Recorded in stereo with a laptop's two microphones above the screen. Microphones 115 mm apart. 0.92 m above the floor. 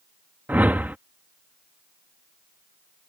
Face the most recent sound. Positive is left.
turn(degrees=-15)  # may be behind; listen again after turning